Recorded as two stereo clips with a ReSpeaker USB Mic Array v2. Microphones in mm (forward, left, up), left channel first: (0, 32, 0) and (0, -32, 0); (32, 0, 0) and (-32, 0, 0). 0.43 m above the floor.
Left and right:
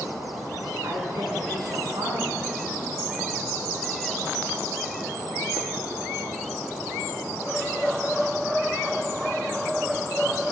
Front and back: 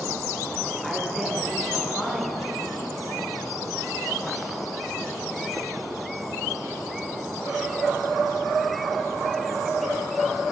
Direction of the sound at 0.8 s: 85° right.